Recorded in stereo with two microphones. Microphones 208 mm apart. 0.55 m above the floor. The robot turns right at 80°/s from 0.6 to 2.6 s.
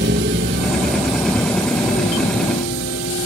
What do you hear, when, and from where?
0.0 s a vehicle: 60° right (ahead or behind); by 3.3 s 85° left